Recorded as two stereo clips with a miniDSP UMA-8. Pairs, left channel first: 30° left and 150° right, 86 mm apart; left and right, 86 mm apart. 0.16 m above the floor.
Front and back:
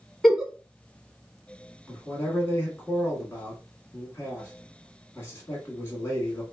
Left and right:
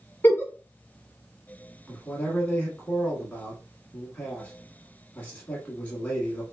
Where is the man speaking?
40° left, 1.2 m.